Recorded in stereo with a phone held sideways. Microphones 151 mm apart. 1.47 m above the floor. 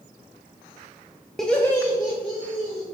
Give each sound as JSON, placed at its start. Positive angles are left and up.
{"t": 1.4, "sound": "laughter", "side_deg": 0, "distance_m": 0.6}